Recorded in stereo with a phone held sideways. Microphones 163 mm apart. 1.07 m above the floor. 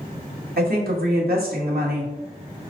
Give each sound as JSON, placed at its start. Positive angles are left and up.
{"t": 0.6, "sound": "a woman speaking", "side_deg": -70, "distance_m": 1.2}